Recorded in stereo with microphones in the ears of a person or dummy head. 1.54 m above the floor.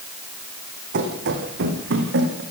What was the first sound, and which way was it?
Running footsteps, 60° right (ahead or behind).